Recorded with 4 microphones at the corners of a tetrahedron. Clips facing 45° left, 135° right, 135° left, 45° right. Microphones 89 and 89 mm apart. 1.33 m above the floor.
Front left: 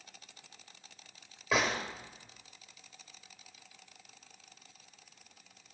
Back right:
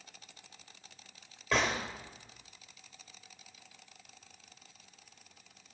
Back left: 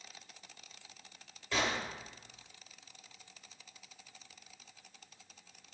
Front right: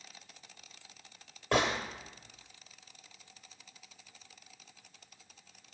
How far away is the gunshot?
About 2 m.